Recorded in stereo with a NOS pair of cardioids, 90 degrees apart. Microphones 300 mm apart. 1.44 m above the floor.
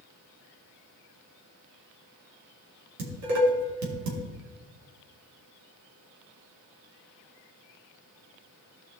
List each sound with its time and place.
3.0 s dishes clattering: 65° right, 3 m